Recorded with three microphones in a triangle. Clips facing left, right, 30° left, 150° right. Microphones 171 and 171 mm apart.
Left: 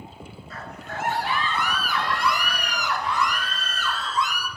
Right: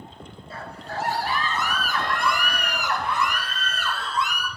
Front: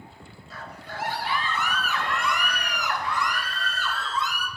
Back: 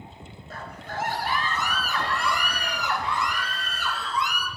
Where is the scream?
140° right, 1.7 m; by 4.5 s 75° right, 2.5 m.